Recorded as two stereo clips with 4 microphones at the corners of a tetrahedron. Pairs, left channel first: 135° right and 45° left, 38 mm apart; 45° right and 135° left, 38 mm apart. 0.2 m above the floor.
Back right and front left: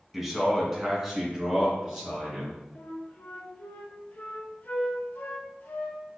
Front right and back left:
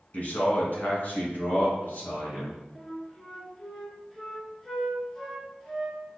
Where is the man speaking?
40° right, 1.5 m; by 2.6 s 35° right, 3 m.